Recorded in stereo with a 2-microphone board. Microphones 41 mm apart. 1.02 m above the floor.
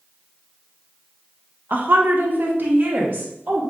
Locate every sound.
1.7 s a woman speaking: 45° right (ahead or behind), 0.5 m